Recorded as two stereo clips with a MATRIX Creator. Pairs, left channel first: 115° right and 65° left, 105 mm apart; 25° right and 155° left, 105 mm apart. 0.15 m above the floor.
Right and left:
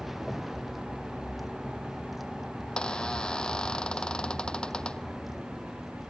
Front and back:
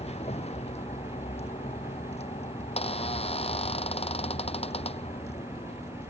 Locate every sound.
0.0 s a vehicle: 20° right
2.6 s a squeak: 30° right